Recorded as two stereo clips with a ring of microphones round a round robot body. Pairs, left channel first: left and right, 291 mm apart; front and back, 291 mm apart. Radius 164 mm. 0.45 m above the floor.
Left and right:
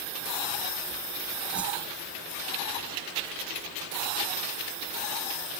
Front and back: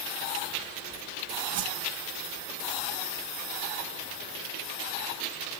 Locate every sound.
1.5 s a whoosh: 175° right